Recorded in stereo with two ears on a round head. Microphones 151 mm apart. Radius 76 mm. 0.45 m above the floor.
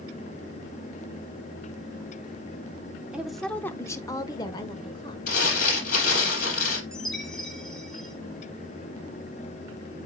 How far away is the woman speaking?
About 0.7 m.